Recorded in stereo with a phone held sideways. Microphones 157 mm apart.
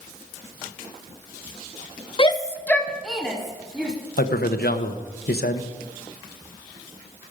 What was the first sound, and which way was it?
A shout, 35° left (ahead or behind).